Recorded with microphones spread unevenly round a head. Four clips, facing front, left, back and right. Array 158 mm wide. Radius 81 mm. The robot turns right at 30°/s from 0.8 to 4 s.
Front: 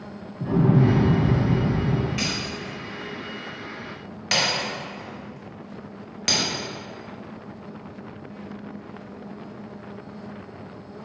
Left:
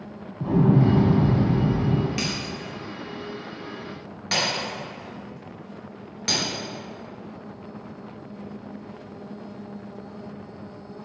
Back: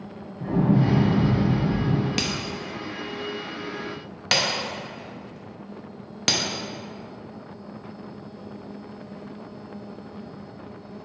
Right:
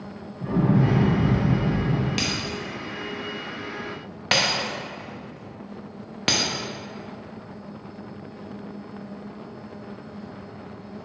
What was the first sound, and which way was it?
An explosion, 90° left.